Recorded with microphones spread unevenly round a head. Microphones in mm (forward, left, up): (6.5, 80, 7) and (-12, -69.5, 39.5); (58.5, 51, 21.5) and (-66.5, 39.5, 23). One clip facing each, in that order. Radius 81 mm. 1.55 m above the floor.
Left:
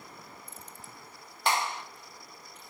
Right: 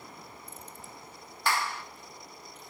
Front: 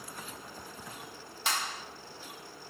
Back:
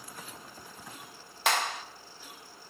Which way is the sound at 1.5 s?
155° left.